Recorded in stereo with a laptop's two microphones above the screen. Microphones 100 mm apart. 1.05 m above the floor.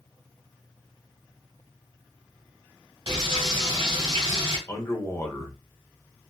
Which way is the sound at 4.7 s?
25° left (ahead or behind).